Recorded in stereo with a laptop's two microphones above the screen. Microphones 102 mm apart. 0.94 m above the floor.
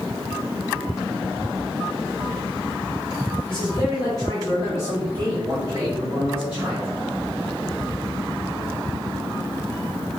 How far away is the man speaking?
About 1.8 m.